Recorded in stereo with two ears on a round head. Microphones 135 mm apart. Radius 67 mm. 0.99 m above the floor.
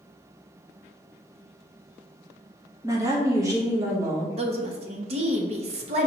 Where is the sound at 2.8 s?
20° right (ahead or behind), 0.9 m.